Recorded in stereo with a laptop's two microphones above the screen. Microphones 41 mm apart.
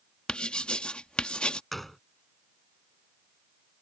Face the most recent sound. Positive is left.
turn(degrees=5)  # may be behind; listen again after turning